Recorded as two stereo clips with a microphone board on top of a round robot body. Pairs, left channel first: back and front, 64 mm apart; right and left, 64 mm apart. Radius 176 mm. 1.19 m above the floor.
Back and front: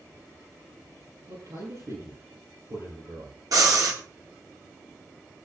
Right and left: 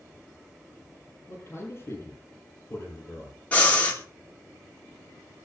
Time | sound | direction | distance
1.3 | a man speaking | 40° right | 8 m
3.5 | breathing | 20° right | 2.5 m